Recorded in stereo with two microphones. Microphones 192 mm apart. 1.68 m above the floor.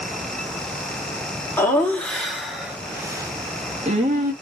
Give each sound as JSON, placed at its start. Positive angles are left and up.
{"t": 1.6, "sound": "laughter", "side_deg": 15, "distance_m": 1.8}